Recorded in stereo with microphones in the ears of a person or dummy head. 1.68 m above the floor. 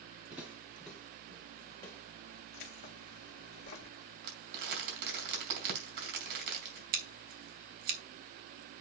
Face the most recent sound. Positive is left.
turn(degrees=-55)  # may be behind; listen again after turning